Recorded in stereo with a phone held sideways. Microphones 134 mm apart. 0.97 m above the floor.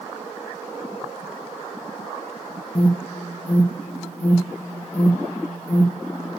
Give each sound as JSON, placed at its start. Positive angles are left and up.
{"t": 2.8, "sound": "an alarm", "side_deg": 50, "distance_m": 2.0}